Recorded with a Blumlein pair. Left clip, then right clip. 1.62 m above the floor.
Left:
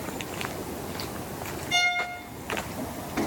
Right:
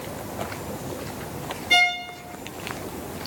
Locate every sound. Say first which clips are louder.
1.7 s a violin: right 5 dB; 50° right, 2.5 m